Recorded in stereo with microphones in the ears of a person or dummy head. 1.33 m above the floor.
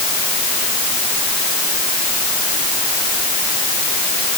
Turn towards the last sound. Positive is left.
No sound to turn to.